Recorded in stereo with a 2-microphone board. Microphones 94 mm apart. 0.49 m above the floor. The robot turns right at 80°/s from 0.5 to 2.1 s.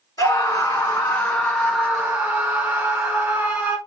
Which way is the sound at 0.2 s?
90° left.